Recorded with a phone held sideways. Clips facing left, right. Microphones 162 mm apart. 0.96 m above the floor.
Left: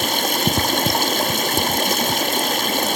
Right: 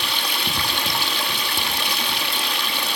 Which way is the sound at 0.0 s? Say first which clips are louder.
Left 8 dB; 45° left (ahead or behind).